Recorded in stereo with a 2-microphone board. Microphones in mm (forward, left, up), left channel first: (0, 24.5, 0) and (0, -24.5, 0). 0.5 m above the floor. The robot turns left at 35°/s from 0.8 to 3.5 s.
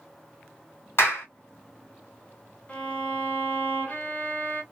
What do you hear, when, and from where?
1.0 s a clap: 55° left (ahead or behind), 1.7 m
2.7 s a violin: 30° left (ahead or behind), 1.6 m; by 4.6 s 40° left (ahead or behind), 1.6 m